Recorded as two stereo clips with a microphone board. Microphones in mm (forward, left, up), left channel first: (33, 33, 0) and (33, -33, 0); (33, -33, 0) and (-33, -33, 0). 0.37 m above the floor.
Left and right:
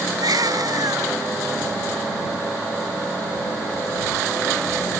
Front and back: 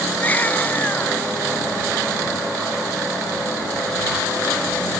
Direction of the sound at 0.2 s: 65° right.